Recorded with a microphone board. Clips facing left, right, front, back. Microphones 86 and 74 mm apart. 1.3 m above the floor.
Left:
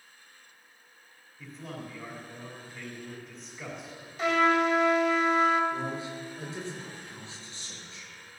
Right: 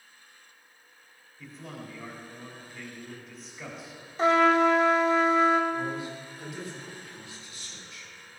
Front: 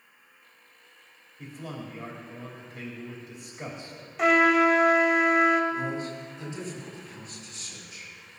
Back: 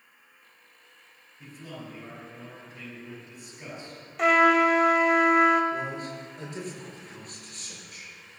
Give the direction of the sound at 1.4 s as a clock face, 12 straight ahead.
12 o'clock.